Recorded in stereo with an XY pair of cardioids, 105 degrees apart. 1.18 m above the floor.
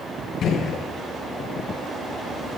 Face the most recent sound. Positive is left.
turn(degrees=60)